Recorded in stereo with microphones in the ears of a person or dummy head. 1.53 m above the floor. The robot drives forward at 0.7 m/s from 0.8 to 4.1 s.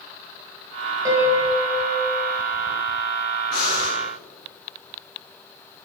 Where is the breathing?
Centre (ahead or behind), 2.5 m.